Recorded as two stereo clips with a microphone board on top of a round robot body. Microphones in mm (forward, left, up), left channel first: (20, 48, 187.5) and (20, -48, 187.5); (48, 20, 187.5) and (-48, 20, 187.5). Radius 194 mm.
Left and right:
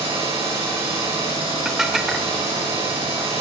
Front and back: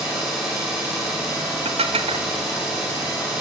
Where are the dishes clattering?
175° right, 1.3 m.